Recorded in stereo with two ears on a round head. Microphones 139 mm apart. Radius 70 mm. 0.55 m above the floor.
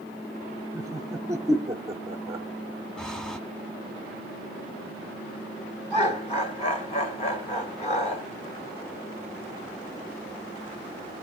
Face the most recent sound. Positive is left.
turn(degrees=45)  # may be behind; listen again after turning